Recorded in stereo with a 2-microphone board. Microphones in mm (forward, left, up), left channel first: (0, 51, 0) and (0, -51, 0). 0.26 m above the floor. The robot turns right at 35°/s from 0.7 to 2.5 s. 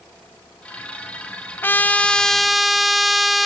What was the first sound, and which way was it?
A trumpet, 150° left.